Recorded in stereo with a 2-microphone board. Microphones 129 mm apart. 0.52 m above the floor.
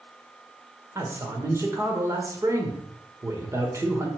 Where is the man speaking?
25° right (ahead or behind), 1.6 m.